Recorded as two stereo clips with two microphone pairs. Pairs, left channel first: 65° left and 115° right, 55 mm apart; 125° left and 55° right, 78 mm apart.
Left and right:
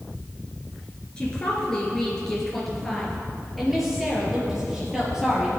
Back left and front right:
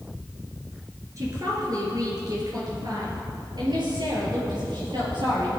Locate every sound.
1.2 s a woman speaking: 10° right, 3.5 m; by 5.5 s 40° right, 5.5 m